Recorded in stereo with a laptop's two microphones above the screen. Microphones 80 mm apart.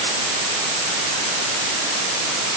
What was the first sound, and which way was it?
Only background noise.